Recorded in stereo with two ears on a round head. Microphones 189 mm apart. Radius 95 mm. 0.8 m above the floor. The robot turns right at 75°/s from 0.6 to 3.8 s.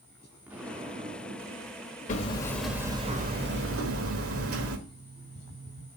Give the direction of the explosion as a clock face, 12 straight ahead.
6 o'clock.